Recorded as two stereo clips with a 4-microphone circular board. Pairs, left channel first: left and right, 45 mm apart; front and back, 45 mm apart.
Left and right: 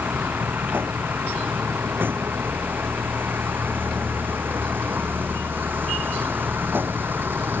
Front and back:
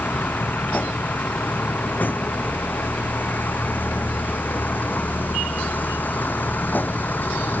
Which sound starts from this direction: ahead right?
A vehicle, at 0.0 s.